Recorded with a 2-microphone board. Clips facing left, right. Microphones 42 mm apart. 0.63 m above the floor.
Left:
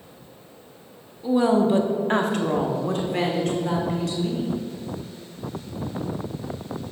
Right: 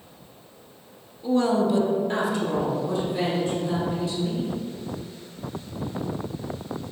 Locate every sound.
1.2 s a woman speaking: 5° left (ahead or behind), 0.8 m; by 4.5 s 75° left (ahead or behind), 2.5 m